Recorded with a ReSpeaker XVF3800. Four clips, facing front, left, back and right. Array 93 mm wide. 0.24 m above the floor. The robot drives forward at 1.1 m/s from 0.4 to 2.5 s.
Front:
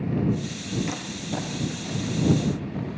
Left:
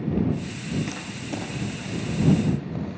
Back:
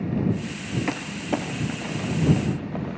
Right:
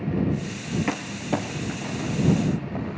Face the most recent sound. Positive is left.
turn(degrees=-150)